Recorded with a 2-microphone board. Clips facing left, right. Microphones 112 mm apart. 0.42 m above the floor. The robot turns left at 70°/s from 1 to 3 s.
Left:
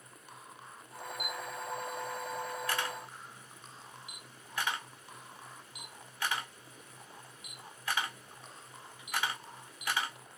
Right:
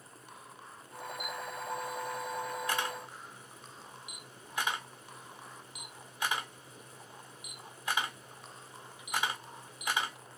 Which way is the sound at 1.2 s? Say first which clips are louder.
Even; 5° left (ahead or behind).